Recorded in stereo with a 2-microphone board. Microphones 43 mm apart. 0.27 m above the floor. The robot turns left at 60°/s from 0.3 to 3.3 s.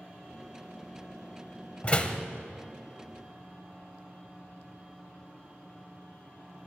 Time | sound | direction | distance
1.8 | a door slam | 30° left (ahead or behind) | 0.7 m